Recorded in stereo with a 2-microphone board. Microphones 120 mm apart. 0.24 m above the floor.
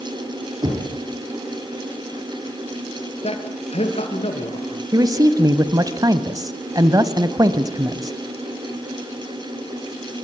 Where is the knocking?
35° right (ahead or behind), 5 m.